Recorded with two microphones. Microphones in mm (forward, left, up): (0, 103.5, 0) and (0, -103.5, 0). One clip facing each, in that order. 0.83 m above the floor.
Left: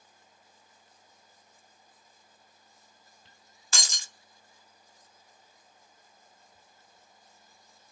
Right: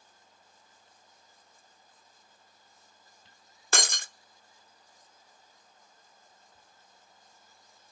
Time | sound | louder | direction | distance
3.7 | breaking glass | right 9 dB | 60° right (ahead or behind) | 0.6 m